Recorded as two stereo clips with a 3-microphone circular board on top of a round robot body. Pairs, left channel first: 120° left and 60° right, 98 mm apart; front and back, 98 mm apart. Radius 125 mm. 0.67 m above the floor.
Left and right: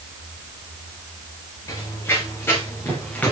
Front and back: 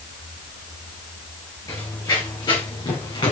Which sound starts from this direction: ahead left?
Running footsteps, at 1.7 s.